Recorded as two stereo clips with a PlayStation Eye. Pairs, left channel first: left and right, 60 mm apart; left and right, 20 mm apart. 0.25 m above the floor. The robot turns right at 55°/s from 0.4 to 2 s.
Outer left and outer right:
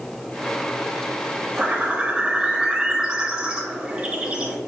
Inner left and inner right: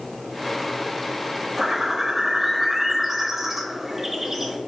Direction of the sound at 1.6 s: 20° right (ahead or behind).